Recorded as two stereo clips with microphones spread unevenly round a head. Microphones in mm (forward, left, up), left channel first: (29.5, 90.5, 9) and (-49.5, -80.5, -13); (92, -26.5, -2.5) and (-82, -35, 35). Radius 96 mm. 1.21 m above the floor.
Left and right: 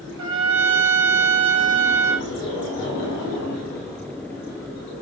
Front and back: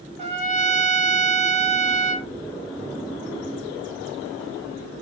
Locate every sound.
0.2 s a trumpet: 125° right, 3 m